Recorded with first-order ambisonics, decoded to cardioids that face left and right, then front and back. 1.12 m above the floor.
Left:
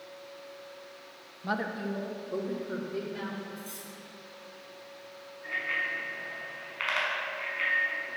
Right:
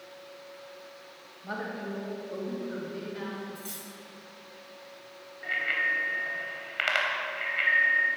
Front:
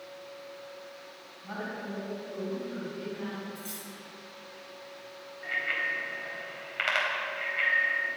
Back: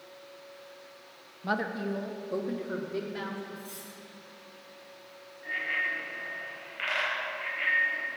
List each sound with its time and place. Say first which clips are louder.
1.4 s a woman speaking: left 3 dB, back 7 dB; 150° left, 1.4 m; by 3.4 s 175° left, 3.5 m
3.5 s cutlery clinking: right 1 dB, front 2 dB; 55° right, 3.5 m
5.4 s a bicycle bell: right 4 dB, even; 60° right, 4 m